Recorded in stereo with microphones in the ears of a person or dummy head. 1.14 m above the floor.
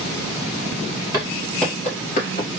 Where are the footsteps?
15° right (ahead or behind), 1.5 m; by 2.5 s 50° left (ahead or behind), 1.7 m.